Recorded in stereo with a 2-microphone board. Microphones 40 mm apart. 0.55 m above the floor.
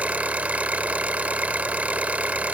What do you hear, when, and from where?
0.0 s an engine running: 40° right (ahead or behind), 0.8 m